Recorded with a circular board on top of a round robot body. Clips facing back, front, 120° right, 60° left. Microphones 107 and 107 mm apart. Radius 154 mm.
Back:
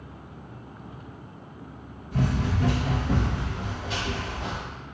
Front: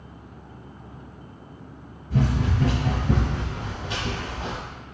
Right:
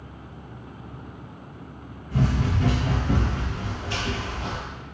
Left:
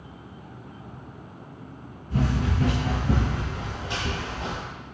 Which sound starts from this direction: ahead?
Running footsteps, at 2.1 s.